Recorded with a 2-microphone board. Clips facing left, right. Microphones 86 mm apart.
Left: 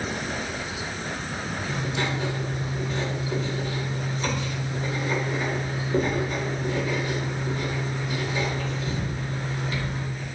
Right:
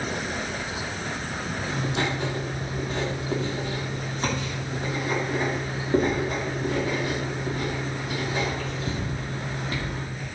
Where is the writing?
50° right (ahead or behind), 3 m.